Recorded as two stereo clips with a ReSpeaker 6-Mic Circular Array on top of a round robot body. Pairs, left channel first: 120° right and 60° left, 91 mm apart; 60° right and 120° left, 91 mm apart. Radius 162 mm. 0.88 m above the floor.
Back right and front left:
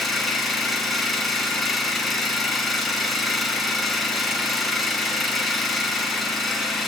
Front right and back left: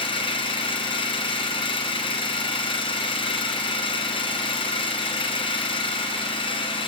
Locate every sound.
0.0 s an engine running: 30° right, 3 m